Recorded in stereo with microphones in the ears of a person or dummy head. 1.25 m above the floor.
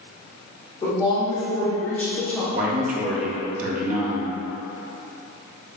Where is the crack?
I don't hear a crack.